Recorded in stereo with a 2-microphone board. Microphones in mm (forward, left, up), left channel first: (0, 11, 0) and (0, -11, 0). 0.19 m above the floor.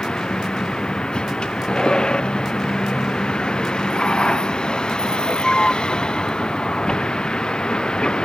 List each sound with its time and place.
0.0 s a vehicle: 45° left (ahead or behind)